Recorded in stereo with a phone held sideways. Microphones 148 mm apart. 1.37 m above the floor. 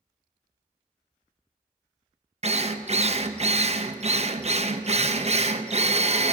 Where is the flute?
No flute in this recording.